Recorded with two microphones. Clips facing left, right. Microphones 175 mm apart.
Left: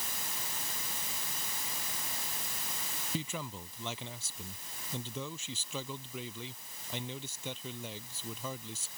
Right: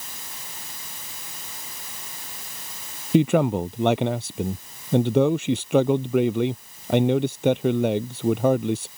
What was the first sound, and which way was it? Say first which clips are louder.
A man speaking: right 22 dB; 70° right (ahead or behind).